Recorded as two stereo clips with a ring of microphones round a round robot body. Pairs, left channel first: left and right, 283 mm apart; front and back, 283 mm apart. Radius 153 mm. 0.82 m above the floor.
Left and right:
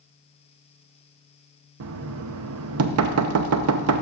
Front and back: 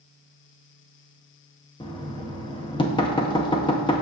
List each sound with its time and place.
1.8 s knocking: 70° right, 0.6 m